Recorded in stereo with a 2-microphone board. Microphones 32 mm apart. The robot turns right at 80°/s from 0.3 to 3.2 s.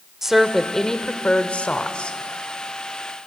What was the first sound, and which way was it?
A woman speaking, 20° right.